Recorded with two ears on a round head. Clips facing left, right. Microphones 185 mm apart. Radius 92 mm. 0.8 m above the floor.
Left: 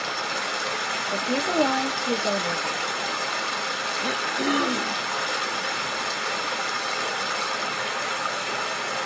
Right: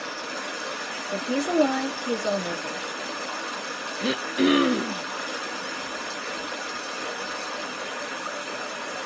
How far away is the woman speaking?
About 1.0 m.